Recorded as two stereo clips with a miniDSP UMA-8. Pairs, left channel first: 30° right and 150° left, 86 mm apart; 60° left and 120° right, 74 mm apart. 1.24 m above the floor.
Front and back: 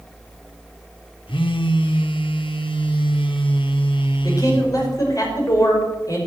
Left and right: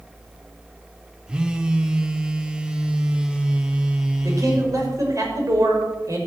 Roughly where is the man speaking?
Right.